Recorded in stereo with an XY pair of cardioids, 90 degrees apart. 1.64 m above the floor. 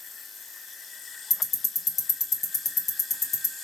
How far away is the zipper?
I don't hear a zipper.